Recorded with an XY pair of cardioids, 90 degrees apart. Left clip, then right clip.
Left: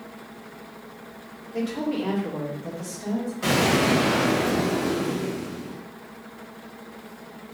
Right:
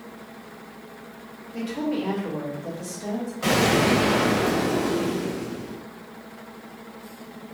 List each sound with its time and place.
1.5 s a woman speaking: 45° left, 1.7 m; by 3.3 s 5° left, 2 m
3.4 s an explosion: 5° left, 1.6 m